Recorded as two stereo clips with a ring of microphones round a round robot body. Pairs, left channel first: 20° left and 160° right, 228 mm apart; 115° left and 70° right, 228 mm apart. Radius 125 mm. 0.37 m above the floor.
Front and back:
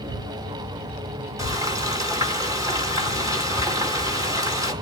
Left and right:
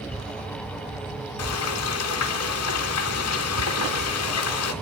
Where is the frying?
125° left, 3 m.